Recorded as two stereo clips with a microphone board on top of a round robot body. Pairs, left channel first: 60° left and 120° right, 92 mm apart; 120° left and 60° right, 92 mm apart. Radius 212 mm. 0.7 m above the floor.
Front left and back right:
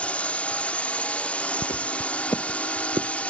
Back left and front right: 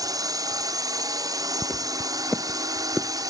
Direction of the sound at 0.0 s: 15° right.